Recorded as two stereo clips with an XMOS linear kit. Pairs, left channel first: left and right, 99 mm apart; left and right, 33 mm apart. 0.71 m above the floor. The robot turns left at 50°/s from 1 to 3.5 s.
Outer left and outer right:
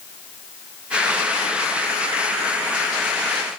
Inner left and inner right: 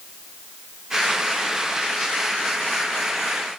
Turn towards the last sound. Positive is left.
No sound to turn to.